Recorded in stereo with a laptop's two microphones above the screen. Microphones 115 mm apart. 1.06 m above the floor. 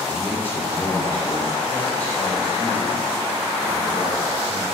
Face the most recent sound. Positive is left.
turn(degrees=10)  # may be behind; listen again after turning